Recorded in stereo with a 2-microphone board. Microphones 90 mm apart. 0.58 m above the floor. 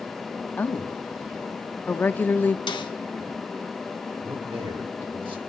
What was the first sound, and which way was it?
A woman speaking, 20° left (ahead or behind).